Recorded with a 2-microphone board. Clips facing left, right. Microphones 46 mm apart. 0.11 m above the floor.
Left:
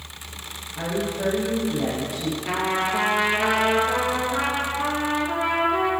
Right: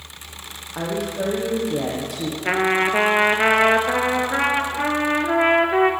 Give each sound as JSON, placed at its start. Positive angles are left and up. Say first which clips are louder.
{"t": 0.8, "sound": "a woman speaking", "louder": "right 2 dB", "side_deg": -70, "distance_m": 4.5}
{"t": 2.5, "sound": "a trumpet", "louder": "right 6 dB", "side_deg": -50, "distance_m": 1.1}